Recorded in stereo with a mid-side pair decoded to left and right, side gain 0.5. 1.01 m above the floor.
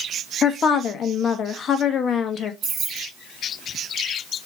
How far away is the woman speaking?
About 1.0 m.